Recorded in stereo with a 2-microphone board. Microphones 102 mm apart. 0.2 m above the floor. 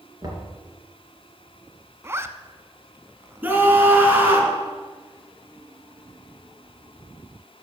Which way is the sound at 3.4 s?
15° right (ahead or behind).